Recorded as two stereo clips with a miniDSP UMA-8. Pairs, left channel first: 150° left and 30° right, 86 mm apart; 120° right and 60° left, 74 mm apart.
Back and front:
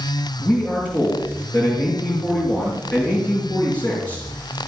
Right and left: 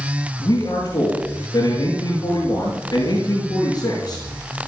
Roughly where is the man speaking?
Behind right.